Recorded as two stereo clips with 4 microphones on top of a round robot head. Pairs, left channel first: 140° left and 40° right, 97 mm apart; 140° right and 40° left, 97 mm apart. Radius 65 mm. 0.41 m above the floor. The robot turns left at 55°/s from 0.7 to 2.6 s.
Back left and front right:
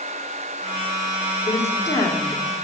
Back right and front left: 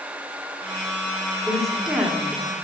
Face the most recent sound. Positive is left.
turn(degrees=80)